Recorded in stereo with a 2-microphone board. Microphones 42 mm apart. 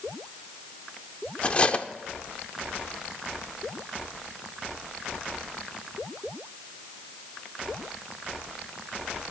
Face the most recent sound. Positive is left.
turn(degrees=30)  # may be behind; listen again after turning